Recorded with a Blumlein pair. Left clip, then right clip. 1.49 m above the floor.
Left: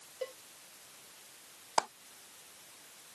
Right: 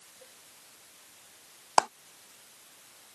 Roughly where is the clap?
Right.